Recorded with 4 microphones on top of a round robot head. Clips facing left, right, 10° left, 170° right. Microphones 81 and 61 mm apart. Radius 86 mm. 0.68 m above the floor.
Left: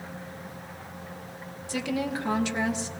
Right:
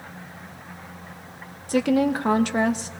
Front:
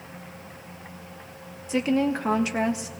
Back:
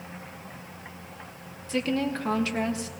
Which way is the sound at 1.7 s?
60° right.